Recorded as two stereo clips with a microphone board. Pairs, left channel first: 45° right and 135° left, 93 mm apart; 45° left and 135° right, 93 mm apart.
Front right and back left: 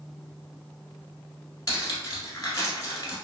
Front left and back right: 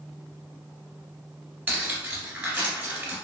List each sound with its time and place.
1.7 s cutlery clinking: 80° right, 1.0 m